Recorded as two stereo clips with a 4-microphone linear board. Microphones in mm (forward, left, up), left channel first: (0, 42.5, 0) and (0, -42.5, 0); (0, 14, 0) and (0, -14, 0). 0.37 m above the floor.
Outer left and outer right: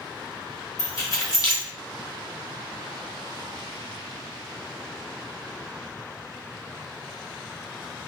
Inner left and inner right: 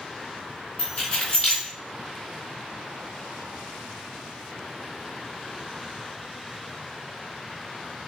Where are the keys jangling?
45° left (ahead or behind), 0.7 m.